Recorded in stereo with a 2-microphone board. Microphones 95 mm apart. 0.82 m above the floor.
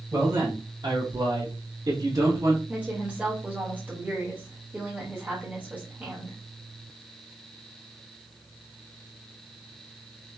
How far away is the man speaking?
About 0.8 m.